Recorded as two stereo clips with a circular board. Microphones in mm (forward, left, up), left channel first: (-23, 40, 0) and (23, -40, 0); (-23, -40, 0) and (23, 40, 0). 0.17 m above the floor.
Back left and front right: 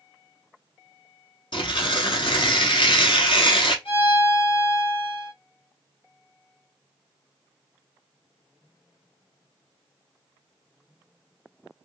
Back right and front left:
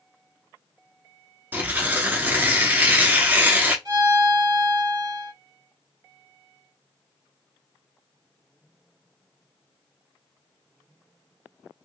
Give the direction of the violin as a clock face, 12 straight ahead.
9 o'clock.